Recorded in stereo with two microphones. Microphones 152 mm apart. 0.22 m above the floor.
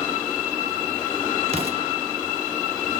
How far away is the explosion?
About 1.0 m.